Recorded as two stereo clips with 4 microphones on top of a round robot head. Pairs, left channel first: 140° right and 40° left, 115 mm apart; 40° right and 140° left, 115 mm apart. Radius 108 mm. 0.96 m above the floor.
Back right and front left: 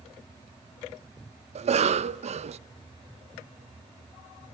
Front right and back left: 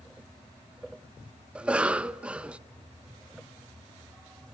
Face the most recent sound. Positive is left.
turn(degrees=60)